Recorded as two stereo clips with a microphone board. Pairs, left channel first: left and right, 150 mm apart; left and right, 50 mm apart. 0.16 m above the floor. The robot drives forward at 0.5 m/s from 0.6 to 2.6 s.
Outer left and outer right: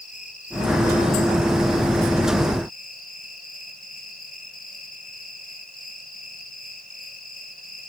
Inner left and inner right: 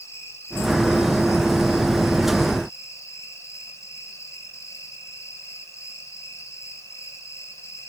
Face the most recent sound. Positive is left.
turn(degrees=70)  # may be behind; listen again after turning